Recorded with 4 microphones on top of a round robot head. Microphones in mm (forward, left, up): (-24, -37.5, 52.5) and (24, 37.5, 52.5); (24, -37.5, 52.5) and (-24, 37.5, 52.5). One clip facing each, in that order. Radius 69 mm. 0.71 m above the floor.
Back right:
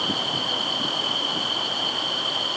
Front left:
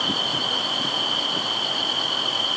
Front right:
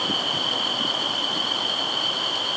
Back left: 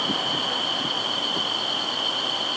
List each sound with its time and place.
Only background noise.